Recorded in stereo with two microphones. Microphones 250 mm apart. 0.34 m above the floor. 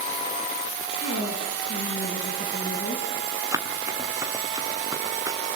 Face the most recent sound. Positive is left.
turn(degrees=-15)  # may be behind; listen again after turning